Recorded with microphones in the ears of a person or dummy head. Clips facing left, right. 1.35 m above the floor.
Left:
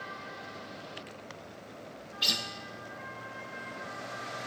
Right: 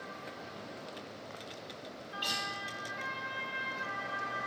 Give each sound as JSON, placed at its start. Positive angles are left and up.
{"t": 2.2, "sound": "a guitar", "side_deg": 30, "distance_m": 0.8}